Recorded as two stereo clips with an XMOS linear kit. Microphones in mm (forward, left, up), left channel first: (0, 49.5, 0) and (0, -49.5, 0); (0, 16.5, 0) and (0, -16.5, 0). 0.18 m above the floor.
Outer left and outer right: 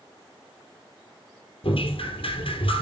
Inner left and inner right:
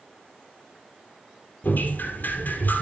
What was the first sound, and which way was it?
Dripping, 65° left (ahead or behind).